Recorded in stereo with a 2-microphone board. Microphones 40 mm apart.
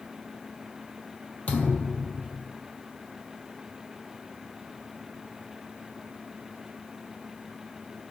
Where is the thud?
40° left (ahead or behind), 0.7 m.